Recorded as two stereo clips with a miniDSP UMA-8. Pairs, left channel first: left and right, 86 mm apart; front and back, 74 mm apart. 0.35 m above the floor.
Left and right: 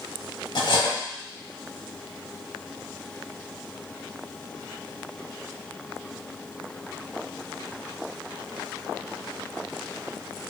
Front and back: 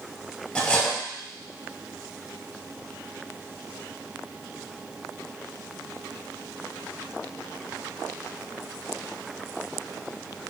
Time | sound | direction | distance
0.6 | cutlery clinking | 75° left | 1.3 m